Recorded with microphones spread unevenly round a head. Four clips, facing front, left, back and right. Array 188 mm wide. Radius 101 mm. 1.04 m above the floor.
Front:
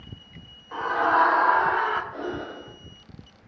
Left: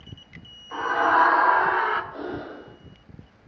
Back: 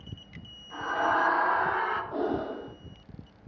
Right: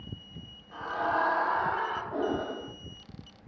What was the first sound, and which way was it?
A scream, 60° left.